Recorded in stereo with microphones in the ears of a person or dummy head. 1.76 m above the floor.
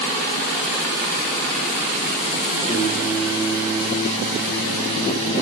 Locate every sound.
2.7 s singing: 35° right (ahead or behind), 3.5 m